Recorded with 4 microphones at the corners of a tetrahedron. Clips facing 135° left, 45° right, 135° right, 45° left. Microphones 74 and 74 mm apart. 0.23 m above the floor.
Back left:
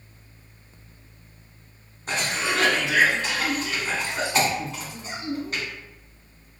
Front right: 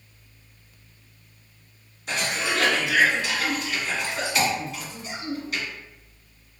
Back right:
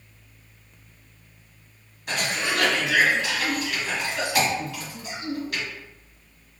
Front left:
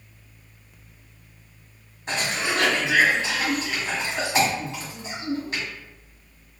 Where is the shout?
I don't hear a shout.